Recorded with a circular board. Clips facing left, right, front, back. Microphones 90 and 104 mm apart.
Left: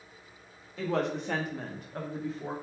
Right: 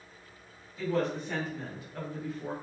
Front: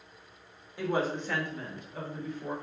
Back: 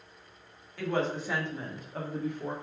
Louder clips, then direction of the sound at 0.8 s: Even, even; 70° left.